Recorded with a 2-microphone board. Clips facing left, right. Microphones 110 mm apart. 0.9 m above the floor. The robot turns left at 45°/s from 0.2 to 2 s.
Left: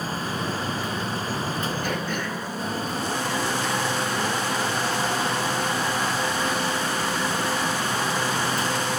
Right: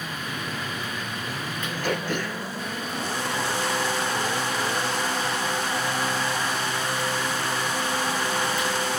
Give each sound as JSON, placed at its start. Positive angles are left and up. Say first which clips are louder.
{"t": 1.8, "sound": "throat clearing", "louder": "right 1 dB", "side_deg": -80, "distance_m": 3.5}